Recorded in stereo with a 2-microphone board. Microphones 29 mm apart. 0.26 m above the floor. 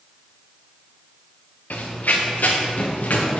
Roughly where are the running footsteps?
Left.